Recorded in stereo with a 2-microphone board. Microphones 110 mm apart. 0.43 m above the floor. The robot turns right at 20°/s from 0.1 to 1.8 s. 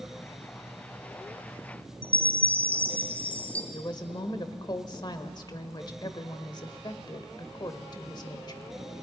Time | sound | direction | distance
2.0 | a chime | 15° left (ahead or behind) | 1.2 m
3.7 | a woman speaking | 40° left (ahead or behind) | 1.4 m